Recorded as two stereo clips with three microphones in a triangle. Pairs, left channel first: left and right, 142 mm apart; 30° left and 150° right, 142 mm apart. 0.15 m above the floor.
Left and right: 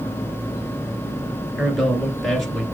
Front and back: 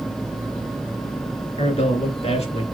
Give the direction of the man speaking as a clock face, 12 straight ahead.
12 o'clock.